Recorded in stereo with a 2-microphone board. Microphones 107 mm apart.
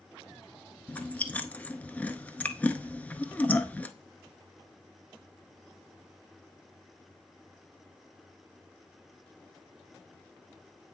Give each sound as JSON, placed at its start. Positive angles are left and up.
{"t": 0.9, "sound": "chewing", "side_deg": 15, "distance_m": 0.6}